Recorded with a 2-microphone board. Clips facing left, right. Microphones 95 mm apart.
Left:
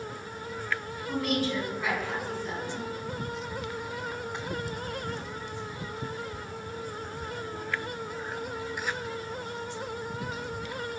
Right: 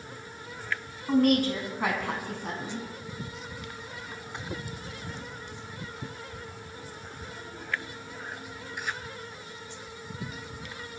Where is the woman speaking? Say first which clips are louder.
Right 6 dB; 50° right (ahead or behind), 3.5 m; by 2.9 s 65° right (ahead or behind), 4.5 m.